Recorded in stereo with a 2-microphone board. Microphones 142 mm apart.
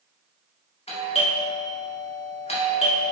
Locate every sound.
0.9 s a doorbell: 45° left (ahead or behind), 1.9 m